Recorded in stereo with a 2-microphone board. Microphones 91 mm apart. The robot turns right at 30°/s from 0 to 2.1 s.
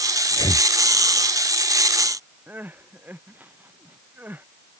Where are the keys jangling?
I don't hear keys jangling.